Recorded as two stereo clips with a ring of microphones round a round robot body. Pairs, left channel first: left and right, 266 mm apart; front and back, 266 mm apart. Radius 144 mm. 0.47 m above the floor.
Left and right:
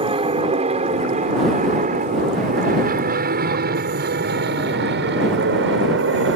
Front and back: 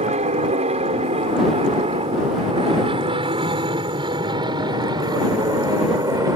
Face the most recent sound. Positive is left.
turn(degrees=-105)